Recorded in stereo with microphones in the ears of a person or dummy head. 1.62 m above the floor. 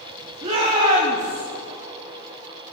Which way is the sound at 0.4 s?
35° right (ahead or behind).